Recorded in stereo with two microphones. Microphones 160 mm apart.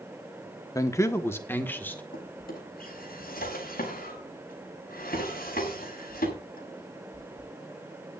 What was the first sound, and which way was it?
A man speaking, 20° left (ahead or behind).